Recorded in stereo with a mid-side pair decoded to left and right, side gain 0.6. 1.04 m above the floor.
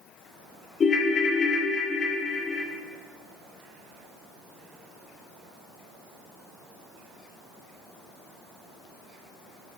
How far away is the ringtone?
About 1.0 m.